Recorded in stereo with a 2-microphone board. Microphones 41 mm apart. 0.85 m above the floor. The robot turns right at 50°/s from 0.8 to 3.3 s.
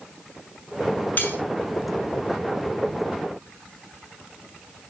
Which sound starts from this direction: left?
Cutlery clinking, at 1.2 s.